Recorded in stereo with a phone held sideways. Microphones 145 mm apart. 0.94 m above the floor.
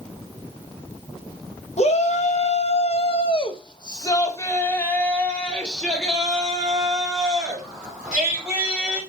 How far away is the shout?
About 1.3 m.